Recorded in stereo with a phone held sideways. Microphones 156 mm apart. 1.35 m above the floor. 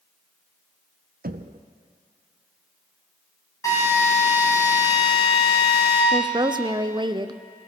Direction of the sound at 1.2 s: 75° right (ahead or behind).